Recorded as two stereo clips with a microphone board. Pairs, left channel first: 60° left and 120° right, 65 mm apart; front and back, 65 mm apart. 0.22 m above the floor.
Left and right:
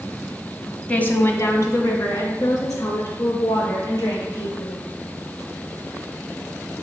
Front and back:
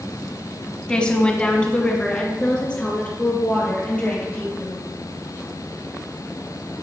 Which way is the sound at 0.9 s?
45° left.